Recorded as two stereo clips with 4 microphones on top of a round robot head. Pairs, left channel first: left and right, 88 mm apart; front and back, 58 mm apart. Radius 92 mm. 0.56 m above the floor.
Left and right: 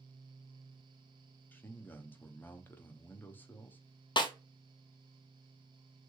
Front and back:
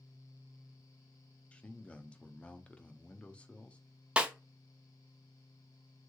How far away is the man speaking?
About 0.7 m.